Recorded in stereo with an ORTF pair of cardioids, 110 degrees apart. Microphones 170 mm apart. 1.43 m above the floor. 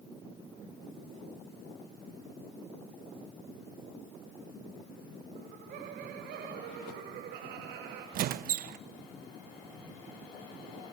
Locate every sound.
5.3 s laughter: 65° right, 2.5 m; by 8.0 s 75° right, 6 m
8.1 s a squeak: 65° right, 1.1 m